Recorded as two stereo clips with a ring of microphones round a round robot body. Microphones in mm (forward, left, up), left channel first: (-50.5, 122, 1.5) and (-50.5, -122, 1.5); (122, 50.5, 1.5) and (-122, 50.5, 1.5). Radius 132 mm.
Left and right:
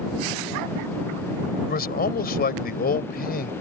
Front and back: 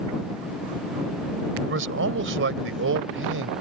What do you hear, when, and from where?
1.6 s a man speaking: 140° left